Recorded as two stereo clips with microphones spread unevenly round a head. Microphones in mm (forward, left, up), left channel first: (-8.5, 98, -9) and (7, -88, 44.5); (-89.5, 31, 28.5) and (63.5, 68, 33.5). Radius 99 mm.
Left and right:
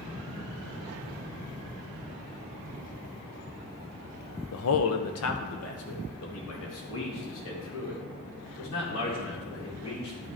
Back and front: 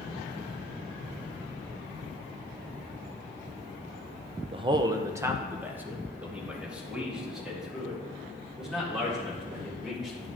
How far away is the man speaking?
About 0.6 m.